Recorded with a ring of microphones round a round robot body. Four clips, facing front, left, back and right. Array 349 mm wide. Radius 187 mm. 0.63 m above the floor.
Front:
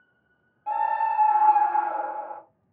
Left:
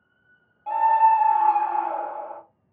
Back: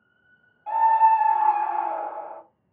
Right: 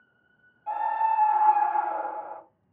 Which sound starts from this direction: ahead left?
A scream, at 0.7 s.